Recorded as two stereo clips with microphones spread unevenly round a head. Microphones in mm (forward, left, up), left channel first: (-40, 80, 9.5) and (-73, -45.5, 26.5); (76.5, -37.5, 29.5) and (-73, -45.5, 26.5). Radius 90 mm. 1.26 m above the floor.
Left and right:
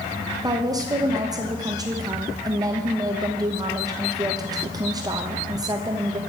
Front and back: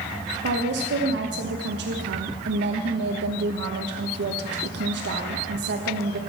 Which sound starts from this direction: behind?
A woman speaking, at 0.4 s.